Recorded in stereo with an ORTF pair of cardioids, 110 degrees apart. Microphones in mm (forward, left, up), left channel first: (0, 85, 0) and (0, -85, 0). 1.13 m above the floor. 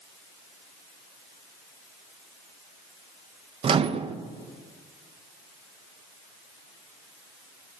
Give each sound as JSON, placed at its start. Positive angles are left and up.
{"t": 3.6, "sound": "a microwave", "azimuth_deg": -30, "distance_m": 0.7}